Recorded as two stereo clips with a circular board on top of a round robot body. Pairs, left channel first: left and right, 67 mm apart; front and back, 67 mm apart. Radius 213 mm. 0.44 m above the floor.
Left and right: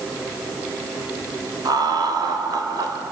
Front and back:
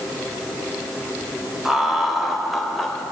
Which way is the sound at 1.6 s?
95° right.